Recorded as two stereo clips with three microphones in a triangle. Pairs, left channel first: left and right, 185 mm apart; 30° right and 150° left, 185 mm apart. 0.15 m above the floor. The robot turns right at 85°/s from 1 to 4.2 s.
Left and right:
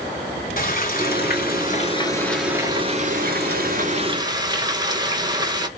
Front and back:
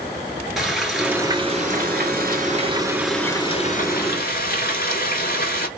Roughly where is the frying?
Ahead left.